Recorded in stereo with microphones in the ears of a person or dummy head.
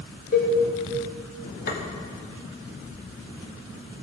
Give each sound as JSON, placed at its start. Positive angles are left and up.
{"t": 0.3, "sound": "a cowbell", "side_deg": 45, "distance_m": 2.0}
{"t": 1.7, "sound": "tapping", "side_deg": 50, "distance_m": 1.0}